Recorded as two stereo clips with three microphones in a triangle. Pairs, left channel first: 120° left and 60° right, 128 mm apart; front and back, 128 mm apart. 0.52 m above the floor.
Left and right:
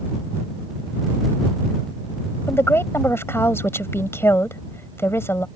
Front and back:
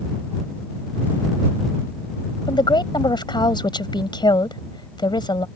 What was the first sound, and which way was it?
A woman speaking, 50° left.